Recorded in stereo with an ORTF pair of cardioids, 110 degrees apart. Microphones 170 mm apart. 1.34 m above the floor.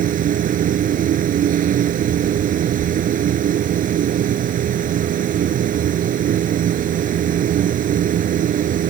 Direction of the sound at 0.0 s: 60° right.